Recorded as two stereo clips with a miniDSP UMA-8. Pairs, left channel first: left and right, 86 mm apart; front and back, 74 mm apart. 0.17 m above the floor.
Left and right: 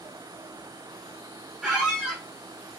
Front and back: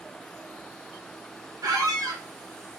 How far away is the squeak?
About 1.0 m.